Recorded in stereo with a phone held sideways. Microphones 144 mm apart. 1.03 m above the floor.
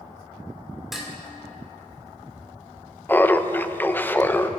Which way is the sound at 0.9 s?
Centre (ahead or behind).